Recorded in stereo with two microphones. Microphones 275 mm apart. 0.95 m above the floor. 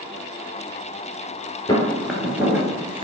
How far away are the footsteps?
About 0.9 m.